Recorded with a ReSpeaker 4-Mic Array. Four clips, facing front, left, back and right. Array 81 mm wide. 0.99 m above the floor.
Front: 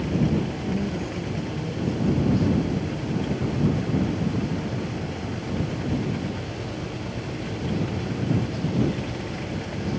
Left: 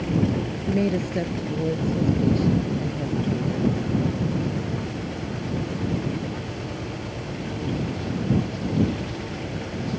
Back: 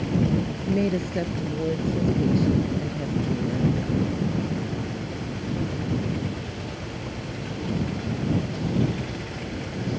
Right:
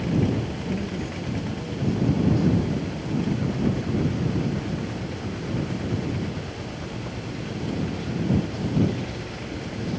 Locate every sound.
0.7 s a woman speaking: 135° left; by 3.8 s 140° left